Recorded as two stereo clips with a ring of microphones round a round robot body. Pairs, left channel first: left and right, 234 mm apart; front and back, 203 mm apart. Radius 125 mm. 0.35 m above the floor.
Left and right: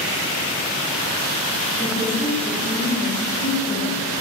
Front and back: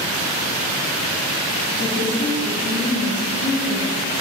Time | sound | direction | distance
1.8 | a woman speaking | 20° left | 2.5 m